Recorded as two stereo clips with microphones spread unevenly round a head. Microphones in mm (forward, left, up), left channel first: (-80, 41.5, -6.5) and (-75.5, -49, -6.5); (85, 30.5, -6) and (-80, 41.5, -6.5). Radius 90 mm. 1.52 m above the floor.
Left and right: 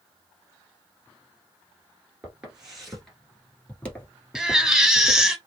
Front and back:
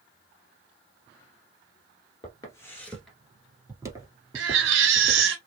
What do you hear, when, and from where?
2.2 s footsteps: 20° right, 1.6 m; by 5.3 s 145° left, 2 m
4.3 s a baby crying: 175° right, 1.2 m